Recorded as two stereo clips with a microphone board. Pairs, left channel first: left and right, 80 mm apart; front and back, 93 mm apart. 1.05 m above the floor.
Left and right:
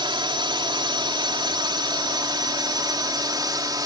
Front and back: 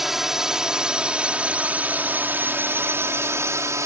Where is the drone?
95° right; by 3.9 s 125° right.